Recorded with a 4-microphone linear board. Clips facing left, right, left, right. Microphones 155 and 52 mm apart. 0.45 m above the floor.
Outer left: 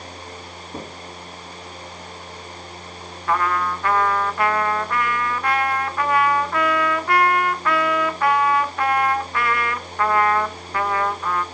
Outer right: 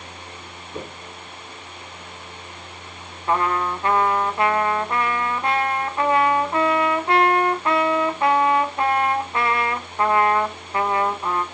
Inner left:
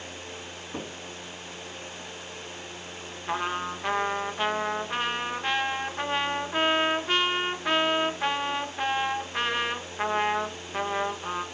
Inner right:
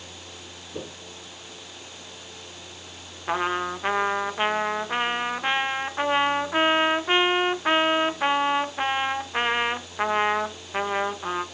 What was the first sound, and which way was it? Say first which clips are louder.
Knocking: outer right 1 dB, inner right 1 dB; 50° left (ahead or behind).